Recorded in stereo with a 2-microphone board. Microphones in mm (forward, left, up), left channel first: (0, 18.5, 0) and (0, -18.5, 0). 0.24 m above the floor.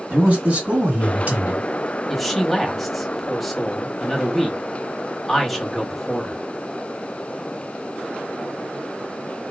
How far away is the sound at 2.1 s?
About 1.0 m.